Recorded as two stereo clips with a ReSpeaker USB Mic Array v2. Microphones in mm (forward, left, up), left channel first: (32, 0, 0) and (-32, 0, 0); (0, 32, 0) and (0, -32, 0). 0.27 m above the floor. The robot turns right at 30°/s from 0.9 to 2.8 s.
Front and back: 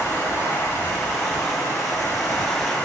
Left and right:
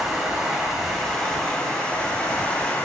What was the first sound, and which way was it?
Running water, 15° right.